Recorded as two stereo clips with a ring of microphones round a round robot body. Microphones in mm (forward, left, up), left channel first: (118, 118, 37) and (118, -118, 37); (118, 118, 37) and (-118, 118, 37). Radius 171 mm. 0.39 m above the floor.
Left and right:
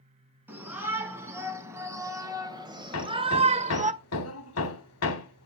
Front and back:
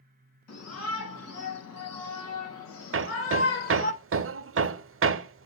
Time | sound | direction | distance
0.5 | a shout | 10° right | 5 m
2.9 | hammering | 140° left | 0.5 m